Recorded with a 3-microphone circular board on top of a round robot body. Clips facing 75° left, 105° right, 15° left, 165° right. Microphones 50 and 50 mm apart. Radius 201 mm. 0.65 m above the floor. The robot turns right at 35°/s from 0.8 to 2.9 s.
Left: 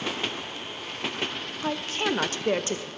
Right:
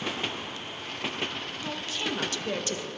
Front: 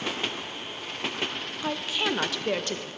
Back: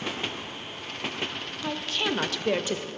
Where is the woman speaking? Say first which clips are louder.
Left 7 dB, front 1 dB; 80° left, 0.6 m; by 2.9 s 120° left, 0.6 m.